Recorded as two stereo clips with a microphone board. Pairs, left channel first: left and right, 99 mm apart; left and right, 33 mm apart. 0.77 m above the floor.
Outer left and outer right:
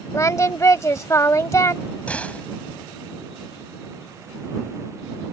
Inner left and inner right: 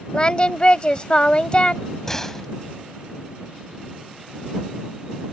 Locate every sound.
0.1 s singing: 30° left (ahead or behind)
2.1 s a door slam: 15° left (ahead or behind)